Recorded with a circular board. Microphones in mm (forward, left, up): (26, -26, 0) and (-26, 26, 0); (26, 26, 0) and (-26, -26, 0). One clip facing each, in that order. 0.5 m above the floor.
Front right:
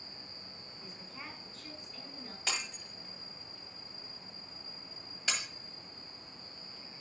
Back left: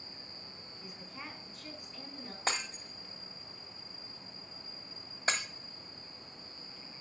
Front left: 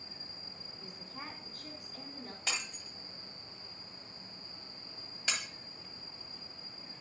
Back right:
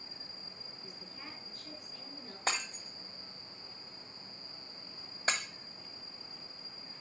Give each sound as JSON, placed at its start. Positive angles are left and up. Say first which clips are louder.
{"t": 0.8, "sound": "a woman speaking", "louder": "back left 2 dB, front left 6 dB", "azimuth_deg": 55, "distance_m": 5.5}
{"t": 2.5, "sound": "breaking glass", "louder": "back left 4 dB, back right 6 dB", "azimuth_deg": 180, "distance_m": 1.3}